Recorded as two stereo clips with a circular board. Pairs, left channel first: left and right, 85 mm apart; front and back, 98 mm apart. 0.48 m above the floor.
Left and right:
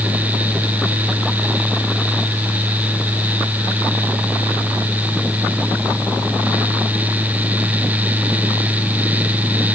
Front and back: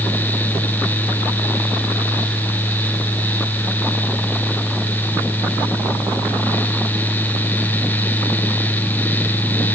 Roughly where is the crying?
No crying in this recording.